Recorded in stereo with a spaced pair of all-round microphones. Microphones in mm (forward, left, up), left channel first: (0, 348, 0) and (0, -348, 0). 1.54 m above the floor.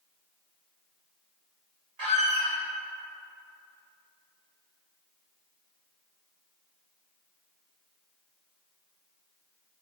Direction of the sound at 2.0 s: 30° right (ahead or behind).